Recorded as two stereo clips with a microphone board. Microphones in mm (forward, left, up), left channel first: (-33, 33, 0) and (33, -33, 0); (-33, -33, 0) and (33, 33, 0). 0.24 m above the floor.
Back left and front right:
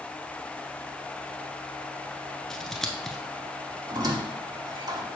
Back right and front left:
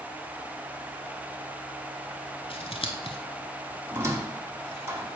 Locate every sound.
2.5 s scissors: 140° right, 0.8 m
3.9 s a squeak: 10° right, 1.1 m